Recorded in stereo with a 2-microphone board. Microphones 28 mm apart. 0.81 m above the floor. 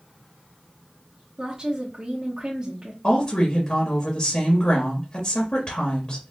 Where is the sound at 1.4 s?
35° right (ahead or behind), 1.2 m.